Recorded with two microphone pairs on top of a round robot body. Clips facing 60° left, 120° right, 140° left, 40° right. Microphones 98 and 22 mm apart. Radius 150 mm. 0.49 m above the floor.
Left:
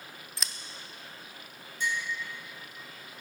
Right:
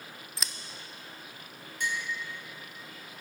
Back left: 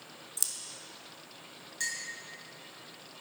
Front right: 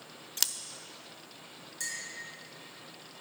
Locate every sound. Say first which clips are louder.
0.4 s scissors: even, front right 5 dB; 35° right, 0.6 m
1.8 s a clink: left 1 dB, back left 3 dB; 155° right, 3 m